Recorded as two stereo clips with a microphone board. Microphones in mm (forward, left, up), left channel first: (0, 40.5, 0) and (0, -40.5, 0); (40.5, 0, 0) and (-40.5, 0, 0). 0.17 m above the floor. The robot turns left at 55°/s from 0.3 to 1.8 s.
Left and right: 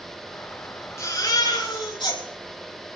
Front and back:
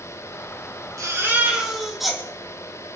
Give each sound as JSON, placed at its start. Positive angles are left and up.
{"t": 1.0, "sound": "a baby crying", "azimuth_deg": 140, "distance_m": 4.5}